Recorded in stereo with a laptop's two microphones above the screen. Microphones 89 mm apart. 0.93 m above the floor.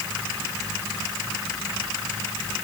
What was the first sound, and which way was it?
Only background noise.